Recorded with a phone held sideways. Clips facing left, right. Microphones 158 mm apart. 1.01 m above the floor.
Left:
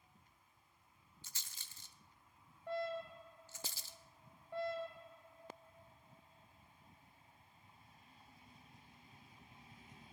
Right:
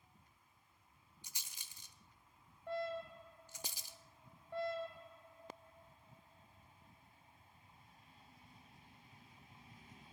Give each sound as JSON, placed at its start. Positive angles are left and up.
{"t": 1.2, "sound": "a rattle", "side_deg": -15, "distance_m": 0.8}